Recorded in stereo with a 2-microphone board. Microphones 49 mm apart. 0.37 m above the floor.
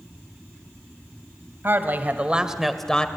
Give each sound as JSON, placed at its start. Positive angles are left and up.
{"t": 1.6, "sound": "a woman speaking", "side_deg": -50, "distance_m": 2.0}